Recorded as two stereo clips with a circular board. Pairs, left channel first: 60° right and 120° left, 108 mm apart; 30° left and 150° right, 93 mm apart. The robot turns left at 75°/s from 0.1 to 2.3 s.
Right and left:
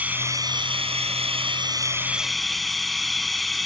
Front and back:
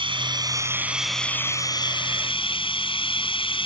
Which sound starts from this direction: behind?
Running water, at 0.0 s.